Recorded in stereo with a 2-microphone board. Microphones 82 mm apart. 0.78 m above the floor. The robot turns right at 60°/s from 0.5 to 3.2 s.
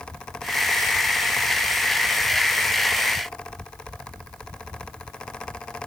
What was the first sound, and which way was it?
Only background noise.